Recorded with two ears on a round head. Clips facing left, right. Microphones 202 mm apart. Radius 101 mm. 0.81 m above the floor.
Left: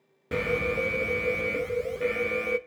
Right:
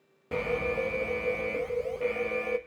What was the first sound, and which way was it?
An alarm, 20° left (ahead or behind).